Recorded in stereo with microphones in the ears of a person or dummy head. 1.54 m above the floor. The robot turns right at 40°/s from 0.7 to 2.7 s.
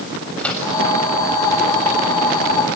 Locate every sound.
0.4 s a microwave: 10° left (ahead or behind), 6.5 m; by 0.7 s 5° left (ahead or behind), 6.5 m